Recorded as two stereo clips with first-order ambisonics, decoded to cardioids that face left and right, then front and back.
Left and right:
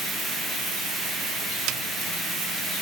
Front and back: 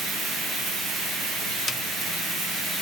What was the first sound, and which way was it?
A snare drum, 75° right.